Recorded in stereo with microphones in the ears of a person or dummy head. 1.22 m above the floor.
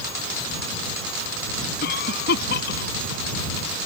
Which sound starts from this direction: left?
A cough, at 1.8 s.